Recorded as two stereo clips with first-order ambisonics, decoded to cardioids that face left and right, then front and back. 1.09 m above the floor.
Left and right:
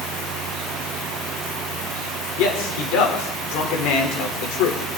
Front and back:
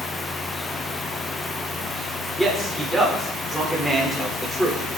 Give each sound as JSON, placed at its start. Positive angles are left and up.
{"t": 2.4, "sound": "a man speaking", "azimuth_deg": 90, "distance_m": 4.0}